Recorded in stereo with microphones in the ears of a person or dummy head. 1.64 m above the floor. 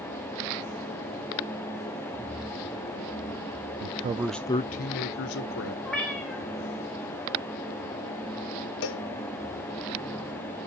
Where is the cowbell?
70° left (ahead or behind), 0.9 m.